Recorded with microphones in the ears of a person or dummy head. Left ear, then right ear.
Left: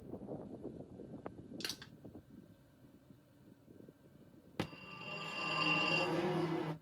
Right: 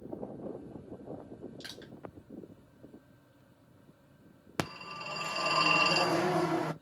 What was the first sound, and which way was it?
Crushing, 25° left (ahead or behind).